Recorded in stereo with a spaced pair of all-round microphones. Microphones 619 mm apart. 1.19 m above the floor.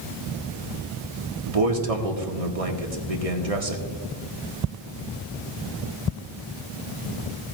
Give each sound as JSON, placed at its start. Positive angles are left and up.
{"t": 1.5, "sound": "a man speaking", "side_deg": -65, "distance_m": 1.6}